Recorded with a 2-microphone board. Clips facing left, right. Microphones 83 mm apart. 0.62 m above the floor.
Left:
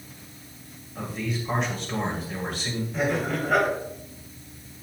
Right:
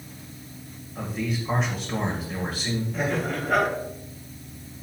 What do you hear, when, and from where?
0.9 s a man speaking: centre (ahead or behind), 2.5 m
2.9 s laughter: 5° left (ahead or behind), 4 m